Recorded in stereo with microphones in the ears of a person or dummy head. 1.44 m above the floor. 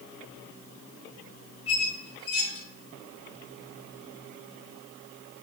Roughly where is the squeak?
Left.